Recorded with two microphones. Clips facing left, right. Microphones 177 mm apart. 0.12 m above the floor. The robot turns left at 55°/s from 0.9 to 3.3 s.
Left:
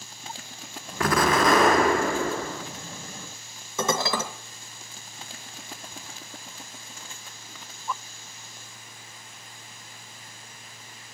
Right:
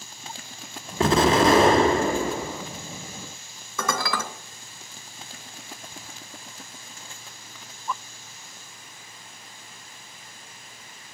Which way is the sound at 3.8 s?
25° left (ahead or behind).